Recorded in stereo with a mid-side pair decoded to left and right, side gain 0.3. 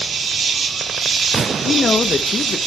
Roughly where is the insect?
Right.